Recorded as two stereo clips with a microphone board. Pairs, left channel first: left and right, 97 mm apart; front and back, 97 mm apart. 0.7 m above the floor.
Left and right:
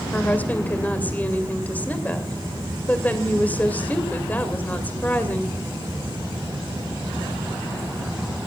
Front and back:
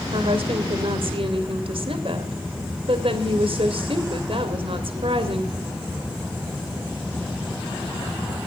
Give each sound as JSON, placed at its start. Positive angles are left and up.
{"t": 0.1, "sound": "a woman speaking", "azimuth_deg": 165, "distance_m": 2.5}